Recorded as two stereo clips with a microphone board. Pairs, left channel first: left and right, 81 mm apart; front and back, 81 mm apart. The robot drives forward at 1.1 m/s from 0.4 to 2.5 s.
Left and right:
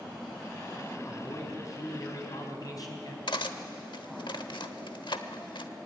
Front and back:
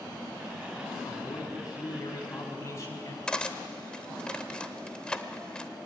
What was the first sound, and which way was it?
A man speaking, 35° left.